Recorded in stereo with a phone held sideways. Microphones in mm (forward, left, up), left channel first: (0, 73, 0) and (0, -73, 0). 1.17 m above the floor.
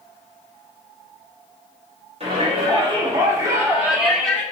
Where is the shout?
45° right (ahead or behind), 3 m; by 4.4 s 10° left (ahead or behind), 1.8 m.